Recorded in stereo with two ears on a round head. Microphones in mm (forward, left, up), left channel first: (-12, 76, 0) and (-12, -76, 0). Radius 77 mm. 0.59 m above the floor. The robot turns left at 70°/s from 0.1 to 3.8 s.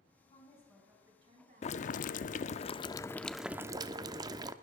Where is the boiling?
120° left, 0.6 m; by 4.5 s 30° right, 0.6 m.